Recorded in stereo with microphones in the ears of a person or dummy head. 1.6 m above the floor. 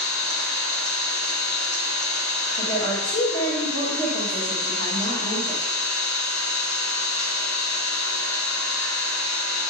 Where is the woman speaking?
25° left (ahead or behind), 2.5 m.